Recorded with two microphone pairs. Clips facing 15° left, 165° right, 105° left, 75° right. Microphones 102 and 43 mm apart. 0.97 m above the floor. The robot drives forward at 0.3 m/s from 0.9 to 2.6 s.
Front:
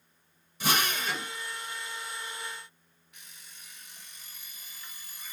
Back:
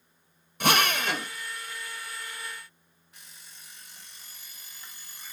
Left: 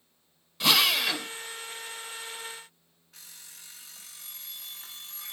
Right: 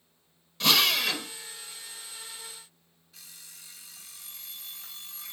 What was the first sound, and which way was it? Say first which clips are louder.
A drill: back 5 dB, even; 170° right.